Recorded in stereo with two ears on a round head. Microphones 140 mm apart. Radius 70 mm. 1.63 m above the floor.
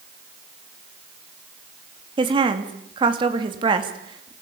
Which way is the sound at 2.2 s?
30° right (ahead or behind).